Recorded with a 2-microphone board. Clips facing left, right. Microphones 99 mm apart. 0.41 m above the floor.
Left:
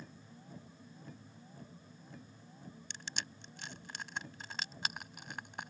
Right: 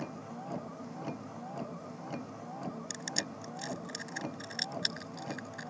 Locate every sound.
0.0 s a vehicle: 80° right
2.9 s crushing: 60° left (ahead or behind)